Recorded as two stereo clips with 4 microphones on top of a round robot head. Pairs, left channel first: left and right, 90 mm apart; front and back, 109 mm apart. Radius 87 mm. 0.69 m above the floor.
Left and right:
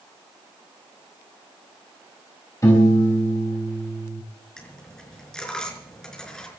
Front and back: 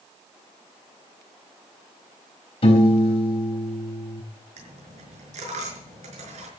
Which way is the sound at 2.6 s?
25° left.